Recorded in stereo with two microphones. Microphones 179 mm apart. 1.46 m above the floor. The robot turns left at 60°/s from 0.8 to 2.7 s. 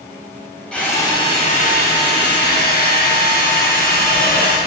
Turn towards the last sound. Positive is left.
turn(degrees=60)